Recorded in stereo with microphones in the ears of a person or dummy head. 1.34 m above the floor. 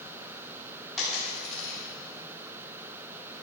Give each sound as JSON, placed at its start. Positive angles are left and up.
{"t": 1.0, "sound": "a dropped coin", "side_deg": 0, "distance_m": 4.0}